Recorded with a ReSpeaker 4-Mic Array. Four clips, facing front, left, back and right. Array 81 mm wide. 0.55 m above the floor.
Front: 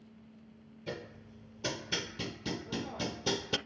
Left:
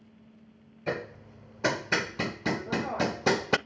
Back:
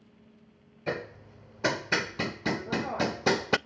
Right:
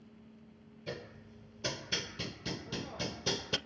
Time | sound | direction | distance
0.9 | hammering | 130° left | 0.6 m